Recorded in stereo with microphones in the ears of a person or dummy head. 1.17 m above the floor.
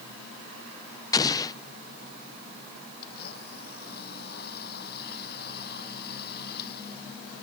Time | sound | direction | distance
1.1 | an explosion | 20° left (ahead or behind) | ?
3.0 | a blender | 55° left (ahead or behind) | ?